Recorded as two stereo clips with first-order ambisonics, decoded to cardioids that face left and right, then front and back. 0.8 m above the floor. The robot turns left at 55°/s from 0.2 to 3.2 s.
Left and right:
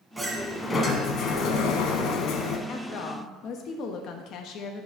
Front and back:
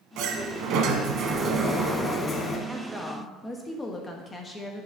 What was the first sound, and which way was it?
A sliding door, 175° right.